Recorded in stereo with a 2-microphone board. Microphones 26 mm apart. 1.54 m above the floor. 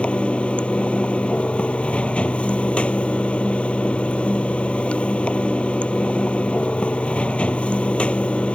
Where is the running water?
50° left (ahead or behind).